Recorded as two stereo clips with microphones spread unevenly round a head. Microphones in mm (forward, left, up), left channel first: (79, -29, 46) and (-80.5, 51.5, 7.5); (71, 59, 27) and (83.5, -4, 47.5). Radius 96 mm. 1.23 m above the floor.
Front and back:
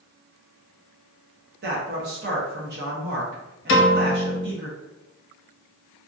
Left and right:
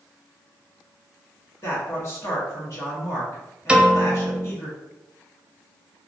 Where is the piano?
Straight ahead, 0.7 m.